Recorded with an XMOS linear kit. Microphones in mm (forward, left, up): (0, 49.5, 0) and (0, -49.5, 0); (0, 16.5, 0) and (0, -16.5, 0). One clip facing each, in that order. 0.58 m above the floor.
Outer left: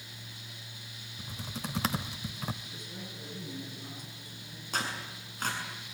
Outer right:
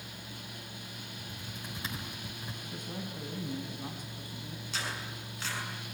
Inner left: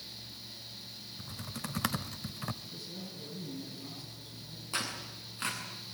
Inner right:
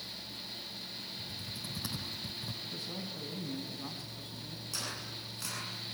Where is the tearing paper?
45° left (ahead or behind), 7 m.